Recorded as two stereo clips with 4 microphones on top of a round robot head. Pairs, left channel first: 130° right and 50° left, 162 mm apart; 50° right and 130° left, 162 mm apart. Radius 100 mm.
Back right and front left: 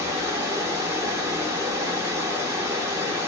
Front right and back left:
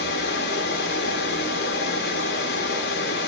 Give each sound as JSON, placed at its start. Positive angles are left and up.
{"t": 0.0, "sound": "running water", "azimuth_deg": -25, "distance_m": 1.1}